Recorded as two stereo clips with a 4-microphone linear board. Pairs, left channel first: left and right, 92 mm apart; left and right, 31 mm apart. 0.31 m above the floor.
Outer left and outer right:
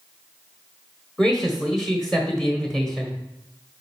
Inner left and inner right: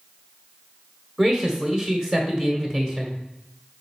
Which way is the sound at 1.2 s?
5° left (ahead or behind).